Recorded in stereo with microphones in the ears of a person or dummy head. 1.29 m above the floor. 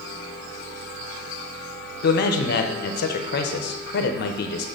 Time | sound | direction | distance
2.0 | a man speaking | 50° left (ahead or behind) | 0.7 m